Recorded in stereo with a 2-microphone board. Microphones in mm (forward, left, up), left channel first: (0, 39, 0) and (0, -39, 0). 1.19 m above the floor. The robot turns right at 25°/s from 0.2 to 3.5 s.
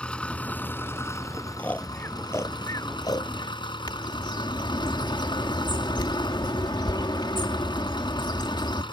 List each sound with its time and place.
0.0 s an engine running: 15° left; by 8.9 s 95° left
1.6 s snoring: 15° left (ahead or behind); by 3.6 s 65° left (ahead or behind)
3.9 s a bird: 75° left (ahead or behind)